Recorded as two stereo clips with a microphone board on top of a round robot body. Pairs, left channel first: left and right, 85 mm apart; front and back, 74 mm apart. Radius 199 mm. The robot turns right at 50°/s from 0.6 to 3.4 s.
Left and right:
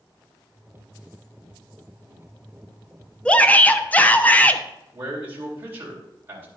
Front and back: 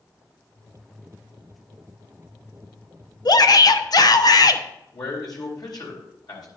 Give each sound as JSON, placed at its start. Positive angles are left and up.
{"t": 3.2, "sound": "a shout", "azimuth_deg": 10, "distance_m": 1.2}
{"t": 4.9, "sound": "a man speaking", "azimuth_deg": -25, "distance_m": 3.5}